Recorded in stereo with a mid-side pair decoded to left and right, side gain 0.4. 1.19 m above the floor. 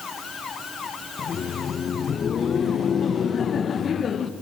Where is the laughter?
55° left, 0.9 m.